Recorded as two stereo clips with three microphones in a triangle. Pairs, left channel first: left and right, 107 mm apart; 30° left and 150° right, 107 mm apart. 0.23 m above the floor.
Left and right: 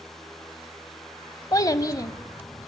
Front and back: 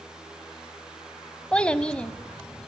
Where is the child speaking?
100° left, 1.1 m.